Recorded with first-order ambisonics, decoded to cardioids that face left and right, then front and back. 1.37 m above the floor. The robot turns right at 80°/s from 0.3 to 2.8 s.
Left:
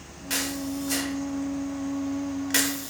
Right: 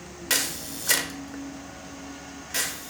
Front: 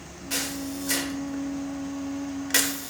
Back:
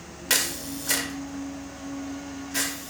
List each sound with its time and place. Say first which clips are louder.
0.3 s a camera shutter: right 2 dB, back 5 dB; 150° right, 0.5 m; by 2.9 s 50° left, 0.5 m